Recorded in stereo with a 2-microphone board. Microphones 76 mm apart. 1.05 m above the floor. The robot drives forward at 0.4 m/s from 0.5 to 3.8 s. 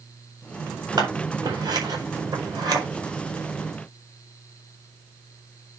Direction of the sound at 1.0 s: 60° right (ahead or behind).